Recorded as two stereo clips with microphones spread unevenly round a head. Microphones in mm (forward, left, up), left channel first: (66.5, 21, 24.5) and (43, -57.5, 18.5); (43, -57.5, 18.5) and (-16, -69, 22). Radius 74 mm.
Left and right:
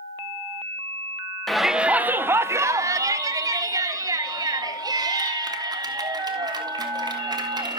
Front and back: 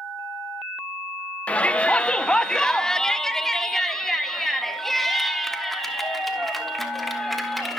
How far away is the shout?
About 0.7 m.